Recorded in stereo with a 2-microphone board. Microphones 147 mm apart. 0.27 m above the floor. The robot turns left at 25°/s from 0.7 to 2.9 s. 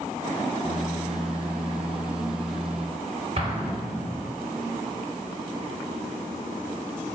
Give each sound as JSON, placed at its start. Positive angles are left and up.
{"t": 3.4, "sound": "an explosion", "side_deg": -45, "distance_m": 1.8}